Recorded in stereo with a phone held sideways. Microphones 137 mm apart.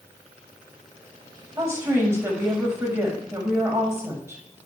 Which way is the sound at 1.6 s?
20° right (ahead or behind).